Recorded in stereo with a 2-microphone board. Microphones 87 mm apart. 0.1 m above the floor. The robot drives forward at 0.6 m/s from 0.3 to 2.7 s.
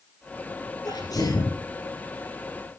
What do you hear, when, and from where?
0.8 s a sneeze: 50° left (ahead or behind), 3 m; by 1.6 s 45° left (ahead or behind), 3 m